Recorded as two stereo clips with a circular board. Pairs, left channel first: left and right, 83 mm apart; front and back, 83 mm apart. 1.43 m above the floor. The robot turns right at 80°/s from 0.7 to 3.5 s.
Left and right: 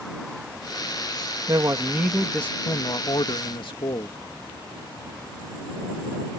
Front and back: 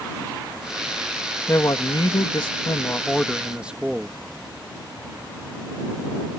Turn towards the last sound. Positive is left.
turn(degrees=105)